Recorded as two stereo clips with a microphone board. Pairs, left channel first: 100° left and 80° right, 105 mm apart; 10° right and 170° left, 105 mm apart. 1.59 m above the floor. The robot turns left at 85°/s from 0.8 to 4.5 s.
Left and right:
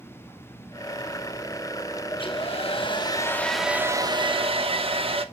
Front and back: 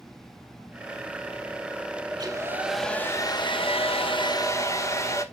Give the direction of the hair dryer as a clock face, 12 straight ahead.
7 o'clock.